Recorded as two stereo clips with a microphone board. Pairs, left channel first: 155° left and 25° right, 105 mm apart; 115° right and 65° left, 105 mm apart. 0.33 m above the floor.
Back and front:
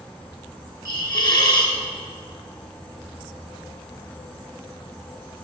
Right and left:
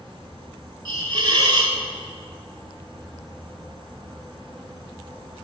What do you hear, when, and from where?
0.8 s a hiss: 110° left, 1.7 m